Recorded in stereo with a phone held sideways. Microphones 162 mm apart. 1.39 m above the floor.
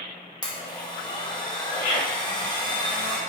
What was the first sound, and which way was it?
A blender, 25° left (ahead or behind).